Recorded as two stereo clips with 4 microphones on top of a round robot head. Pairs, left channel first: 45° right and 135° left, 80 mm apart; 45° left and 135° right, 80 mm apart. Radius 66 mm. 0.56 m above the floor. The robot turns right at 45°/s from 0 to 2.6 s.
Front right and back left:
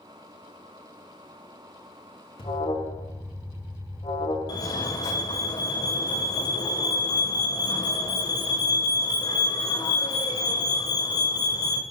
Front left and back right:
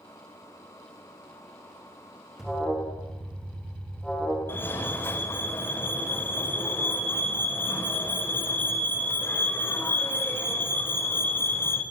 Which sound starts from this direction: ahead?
A fire alarm, at 4.5 s.